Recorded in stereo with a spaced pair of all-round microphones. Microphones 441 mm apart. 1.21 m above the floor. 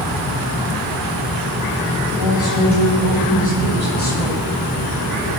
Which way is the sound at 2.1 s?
45° left (ahead or behind).